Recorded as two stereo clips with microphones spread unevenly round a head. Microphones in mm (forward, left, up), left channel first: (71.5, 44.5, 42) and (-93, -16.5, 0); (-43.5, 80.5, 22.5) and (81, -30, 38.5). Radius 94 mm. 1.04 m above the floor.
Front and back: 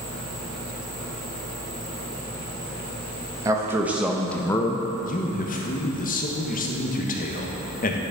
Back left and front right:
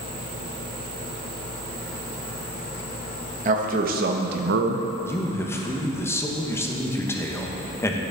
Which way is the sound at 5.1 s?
65° left.